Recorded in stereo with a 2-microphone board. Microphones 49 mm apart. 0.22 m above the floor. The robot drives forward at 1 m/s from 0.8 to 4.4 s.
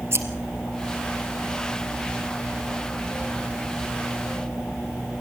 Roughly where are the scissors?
Right.